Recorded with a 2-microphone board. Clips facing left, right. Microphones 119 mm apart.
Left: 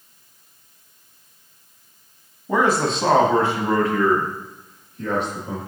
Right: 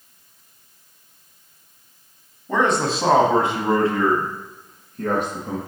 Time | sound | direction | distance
2.5 | a man speaking | 10° left (ahead or behind) | 1.1 m